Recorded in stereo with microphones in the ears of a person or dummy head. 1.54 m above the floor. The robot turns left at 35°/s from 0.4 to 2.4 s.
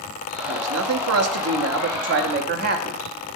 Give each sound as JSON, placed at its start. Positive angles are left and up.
{"t": 0.5, "sound": "a man speaking", "azimuth_deg": -65, "distance_m": 0.6}